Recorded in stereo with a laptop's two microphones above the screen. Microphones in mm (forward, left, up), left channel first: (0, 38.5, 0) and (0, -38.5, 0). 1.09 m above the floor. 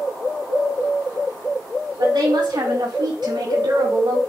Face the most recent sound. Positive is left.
turn(degrees=-85)